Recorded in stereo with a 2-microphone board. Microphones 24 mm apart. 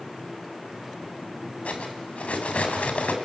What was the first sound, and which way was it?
Cutlery clinking, 80° left.